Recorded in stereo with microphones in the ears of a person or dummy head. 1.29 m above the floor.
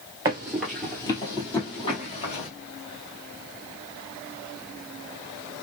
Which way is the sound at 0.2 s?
15° right (ahead or behind).